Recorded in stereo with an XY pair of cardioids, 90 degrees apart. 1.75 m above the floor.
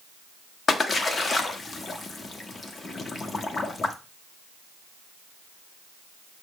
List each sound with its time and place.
0.7 s a splash: 40° left, 0.7 m